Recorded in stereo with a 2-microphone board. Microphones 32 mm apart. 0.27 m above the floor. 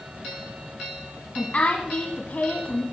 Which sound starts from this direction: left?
A woman speaking, at 1.4 s.